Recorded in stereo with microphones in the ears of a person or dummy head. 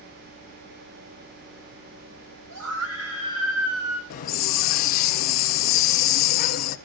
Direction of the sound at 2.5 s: 75° right (ahead or behind).